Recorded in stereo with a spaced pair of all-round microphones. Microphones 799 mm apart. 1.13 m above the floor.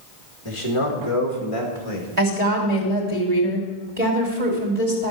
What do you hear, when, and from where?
0.5 s a man speaking: 35° left (ahead or behind), 2.5 m; by 2.1 s 45° left (ahead or behind), 1.8 m
2.2 s a woman speaking: 55° right (ahead or behind), 3 m